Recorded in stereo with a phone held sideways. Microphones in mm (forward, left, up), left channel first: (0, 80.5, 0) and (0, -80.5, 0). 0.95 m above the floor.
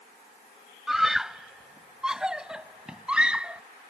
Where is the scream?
Centre (ahead or behind); by 3.6 s 5° right (ahead or behind).